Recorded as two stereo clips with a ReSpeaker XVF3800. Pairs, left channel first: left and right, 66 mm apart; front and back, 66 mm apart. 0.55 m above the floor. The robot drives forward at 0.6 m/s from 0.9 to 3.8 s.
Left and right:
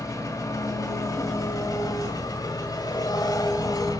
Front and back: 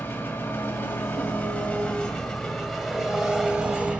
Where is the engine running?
60° left, 2.5 m; by 4.0 s 105° left, 2 m.